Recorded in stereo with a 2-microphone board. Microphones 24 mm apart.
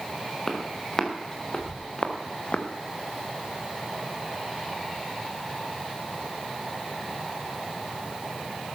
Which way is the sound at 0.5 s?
20° left (ahead or behind).